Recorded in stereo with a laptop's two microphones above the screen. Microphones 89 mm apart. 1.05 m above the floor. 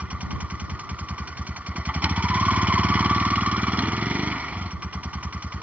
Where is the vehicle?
15° right (ahead or behind).